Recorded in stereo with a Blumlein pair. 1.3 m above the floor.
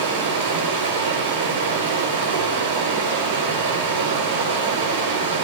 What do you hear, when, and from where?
0.0 s running water: 65° right, 4 m